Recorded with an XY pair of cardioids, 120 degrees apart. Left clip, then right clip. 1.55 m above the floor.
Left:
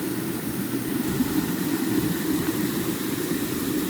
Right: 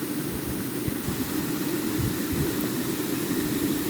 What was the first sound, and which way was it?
Only background noise.